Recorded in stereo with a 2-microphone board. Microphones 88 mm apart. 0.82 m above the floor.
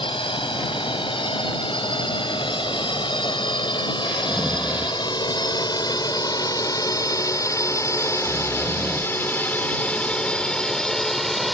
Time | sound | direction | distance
0.0 | a drone | 75° left (ahead or behind) | ?
4.1 | snoring | 10° right (ahead or behind) | ?